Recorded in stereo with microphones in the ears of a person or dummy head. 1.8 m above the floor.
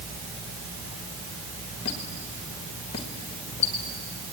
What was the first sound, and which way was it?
A squeak, 30° left (ahead or behind).